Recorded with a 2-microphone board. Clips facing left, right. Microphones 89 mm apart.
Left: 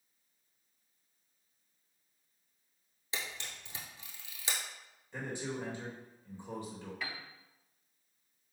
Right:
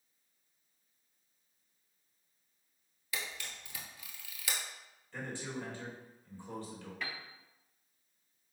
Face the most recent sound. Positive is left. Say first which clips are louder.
# right 1 dB
turn(degrees=0)  # may be behind; listen again after turning